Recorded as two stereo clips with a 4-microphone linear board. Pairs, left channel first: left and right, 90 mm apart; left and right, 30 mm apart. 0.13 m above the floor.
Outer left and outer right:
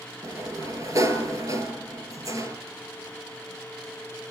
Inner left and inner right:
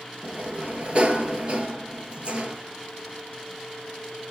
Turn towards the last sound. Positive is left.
turn(degrees=-35)  # may be behind; listen again after turning